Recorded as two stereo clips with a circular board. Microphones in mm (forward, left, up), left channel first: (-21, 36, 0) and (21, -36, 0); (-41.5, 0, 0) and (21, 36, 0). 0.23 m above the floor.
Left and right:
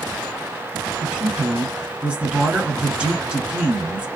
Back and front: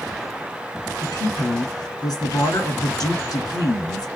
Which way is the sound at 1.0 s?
135° right.